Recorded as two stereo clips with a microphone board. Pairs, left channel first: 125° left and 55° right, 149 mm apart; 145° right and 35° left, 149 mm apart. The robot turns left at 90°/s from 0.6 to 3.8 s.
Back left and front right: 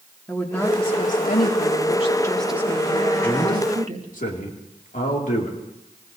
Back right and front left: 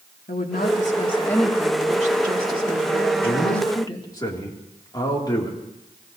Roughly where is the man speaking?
Behind right.